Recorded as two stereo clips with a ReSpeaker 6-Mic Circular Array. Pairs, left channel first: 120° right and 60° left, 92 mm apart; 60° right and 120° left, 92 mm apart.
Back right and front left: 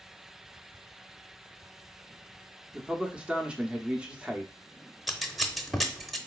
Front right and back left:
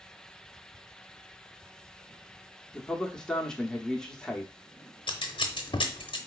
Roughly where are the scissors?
Ahead right.